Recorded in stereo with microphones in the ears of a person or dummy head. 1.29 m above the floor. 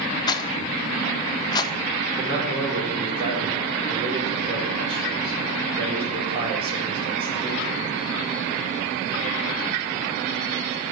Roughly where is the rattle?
Left.